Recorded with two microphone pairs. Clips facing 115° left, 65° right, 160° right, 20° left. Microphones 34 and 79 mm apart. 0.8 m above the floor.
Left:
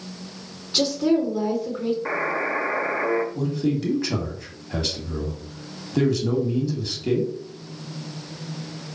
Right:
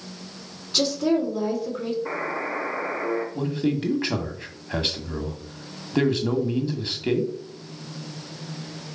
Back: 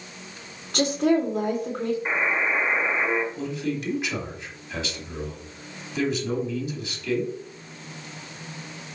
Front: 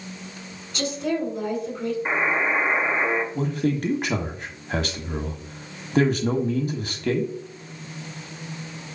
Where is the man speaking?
15° right, 1.5 m.